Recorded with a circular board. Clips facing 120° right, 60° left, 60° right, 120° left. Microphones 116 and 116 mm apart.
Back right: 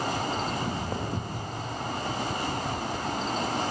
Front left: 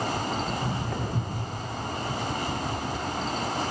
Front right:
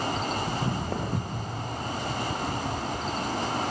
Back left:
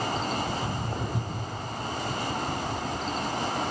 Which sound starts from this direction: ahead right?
Footsteps, at 0.5 s.